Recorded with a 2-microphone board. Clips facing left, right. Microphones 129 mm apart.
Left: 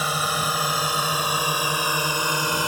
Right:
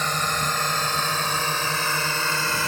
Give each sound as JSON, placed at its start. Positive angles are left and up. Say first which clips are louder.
{"t": 0.0, "sound": "a drone", "louder": "left 1 dB", "side_deg": 10}